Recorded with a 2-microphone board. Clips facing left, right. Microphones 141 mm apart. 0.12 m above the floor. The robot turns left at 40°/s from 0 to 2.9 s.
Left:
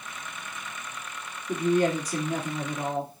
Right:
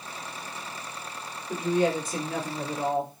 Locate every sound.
1.5 s a woman speaking: 70° left, 2.5 m; by 3.1 s 15° left, 2.5 m